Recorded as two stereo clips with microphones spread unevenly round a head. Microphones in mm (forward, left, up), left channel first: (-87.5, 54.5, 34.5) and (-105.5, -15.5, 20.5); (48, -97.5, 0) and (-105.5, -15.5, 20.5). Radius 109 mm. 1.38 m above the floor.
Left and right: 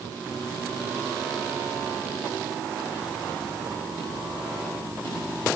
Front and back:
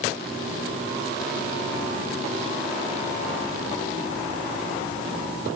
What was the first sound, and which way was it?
Only background noise.